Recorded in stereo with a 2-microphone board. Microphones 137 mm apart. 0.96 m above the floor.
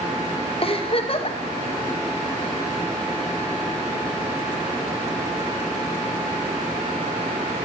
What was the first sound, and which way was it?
A giggle, 45° left (ahead or behind).